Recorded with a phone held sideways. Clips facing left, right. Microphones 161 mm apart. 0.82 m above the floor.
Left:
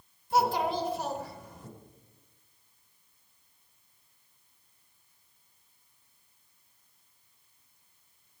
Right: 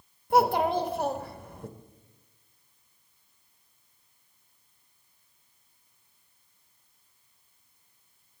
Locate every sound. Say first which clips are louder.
0.3 s a child speaking: right 4 dB; 60° right (ahead or behind), 0.9 m